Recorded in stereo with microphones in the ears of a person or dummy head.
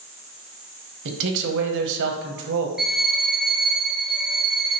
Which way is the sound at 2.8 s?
5° right (ahead or behind).